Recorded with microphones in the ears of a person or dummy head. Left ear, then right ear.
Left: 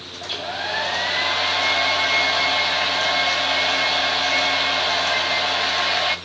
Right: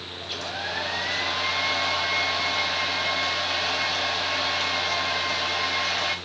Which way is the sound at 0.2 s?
10° left (ahead or behind).